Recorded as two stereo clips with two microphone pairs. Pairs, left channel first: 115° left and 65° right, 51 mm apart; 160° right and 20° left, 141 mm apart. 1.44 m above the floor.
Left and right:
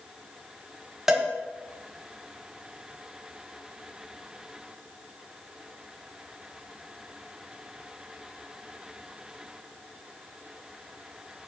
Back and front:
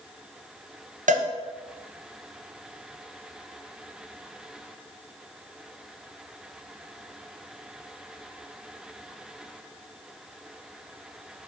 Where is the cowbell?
15° left, 0.9 m.